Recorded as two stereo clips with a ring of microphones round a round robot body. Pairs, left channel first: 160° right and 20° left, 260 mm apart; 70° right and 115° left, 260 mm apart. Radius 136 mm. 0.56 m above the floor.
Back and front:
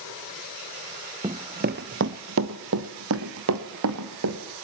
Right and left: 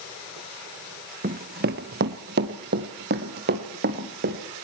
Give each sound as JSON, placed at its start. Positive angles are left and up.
{"t": 1.2, "sound": "running footsteps", "azimuth_deg": 80, "distance_m": 0.5}